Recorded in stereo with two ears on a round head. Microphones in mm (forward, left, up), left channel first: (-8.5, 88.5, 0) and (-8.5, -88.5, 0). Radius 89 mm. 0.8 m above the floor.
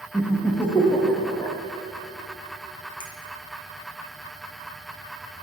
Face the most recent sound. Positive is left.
turn(degrees=25)  # may be behind; listen again after turning